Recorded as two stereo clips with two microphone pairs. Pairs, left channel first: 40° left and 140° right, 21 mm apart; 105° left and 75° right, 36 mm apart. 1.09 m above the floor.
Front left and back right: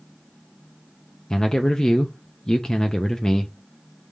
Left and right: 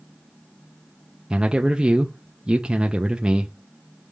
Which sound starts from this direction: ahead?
A man speaking, at 1.3 s.